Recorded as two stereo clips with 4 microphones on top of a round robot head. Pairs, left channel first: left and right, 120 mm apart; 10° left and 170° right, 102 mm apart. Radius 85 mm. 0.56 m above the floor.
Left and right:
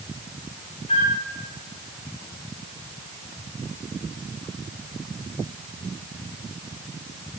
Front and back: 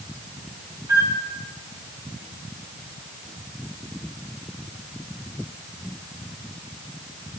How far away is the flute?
About 1.8 m.